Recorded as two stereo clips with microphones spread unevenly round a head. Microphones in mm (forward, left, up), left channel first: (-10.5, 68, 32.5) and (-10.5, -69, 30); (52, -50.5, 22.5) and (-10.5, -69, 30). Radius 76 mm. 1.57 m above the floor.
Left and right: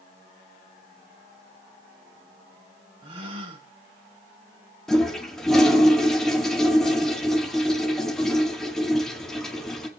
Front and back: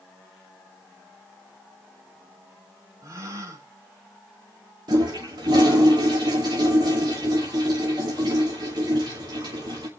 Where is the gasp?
140° right, 3 m.